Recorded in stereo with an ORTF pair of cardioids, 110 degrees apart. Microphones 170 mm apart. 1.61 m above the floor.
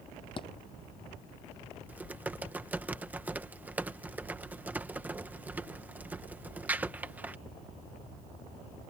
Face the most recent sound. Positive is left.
turn(degrees=-10)